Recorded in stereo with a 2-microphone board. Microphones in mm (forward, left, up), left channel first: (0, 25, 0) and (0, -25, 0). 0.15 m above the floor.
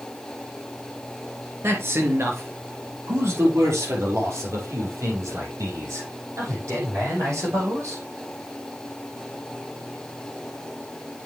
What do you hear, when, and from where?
1.6 s a man speaking: 55° right (ahead or behind), 2.5 m; by 8.0 s 75° right (ahead or behind), 7 m